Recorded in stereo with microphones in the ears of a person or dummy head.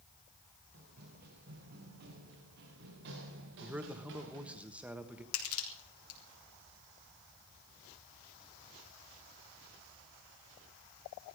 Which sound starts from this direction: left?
Crushing, at 5.3 s.